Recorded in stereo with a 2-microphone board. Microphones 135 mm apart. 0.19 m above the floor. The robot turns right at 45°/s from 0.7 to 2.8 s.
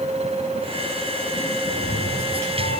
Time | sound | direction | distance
1.6 | a cat meowing | 40° left | 9 m